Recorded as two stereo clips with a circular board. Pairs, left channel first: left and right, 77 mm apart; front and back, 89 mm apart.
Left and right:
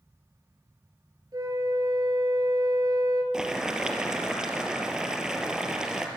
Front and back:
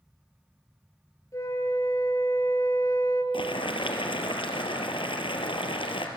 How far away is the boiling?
About 2.5 m.